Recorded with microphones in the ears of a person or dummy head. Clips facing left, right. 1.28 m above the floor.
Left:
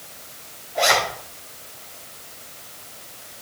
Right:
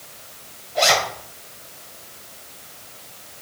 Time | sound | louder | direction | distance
0.8 | a zipper | right 1 dB | 35° right (ahead or behind) | 3 m